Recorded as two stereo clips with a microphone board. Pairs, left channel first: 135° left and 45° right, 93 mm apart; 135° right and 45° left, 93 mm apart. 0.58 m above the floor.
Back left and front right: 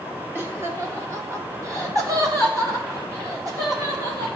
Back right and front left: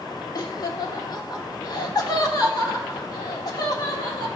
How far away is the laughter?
About 1.7 m.